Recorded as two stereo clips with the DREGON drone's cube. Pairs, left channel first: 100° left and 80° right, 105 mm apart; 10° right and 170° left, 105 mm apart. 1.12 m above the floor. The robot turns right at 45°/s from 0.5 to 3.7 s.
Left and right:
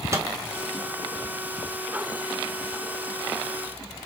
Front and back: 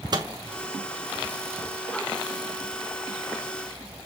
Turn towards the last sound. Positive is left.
turn(degrees=5)